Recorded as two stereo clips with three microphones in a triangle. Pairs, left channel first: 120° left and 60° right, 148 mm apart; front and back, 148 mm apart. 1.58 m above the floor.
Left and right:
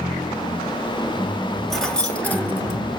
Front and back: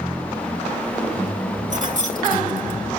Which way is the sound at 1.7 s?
150° right.